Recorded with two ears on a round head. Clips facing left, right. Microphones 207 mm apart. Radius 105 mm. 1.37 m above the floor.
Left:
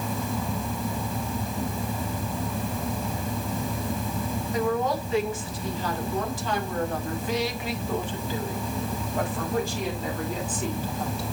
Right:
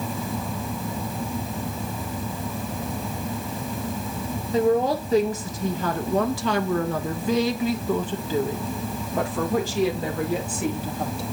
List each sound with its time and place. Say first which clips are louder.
4.5 s a woman speaking: right 6 dB; 25° right (ahead or behind), 2.5 m; by 11.2 s 55° right (ahead or behind), 3.5 m